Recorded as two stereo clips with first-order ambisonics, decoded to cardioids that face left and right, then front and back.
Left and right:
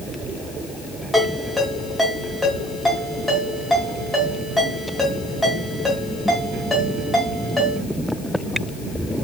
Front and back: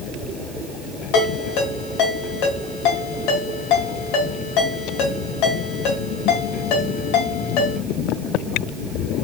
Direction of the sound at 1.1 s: 5° left.